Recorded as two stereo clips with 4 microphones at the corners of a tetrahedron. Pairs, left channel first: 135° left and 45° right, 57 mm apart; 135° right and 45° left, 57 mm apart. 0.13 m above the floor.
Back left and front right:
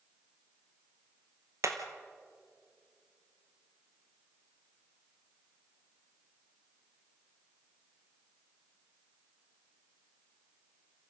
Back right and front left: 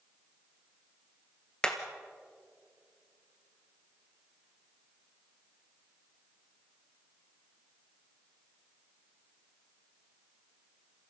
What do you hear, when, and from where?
1.6 s hammering: 60° right, 1.9 m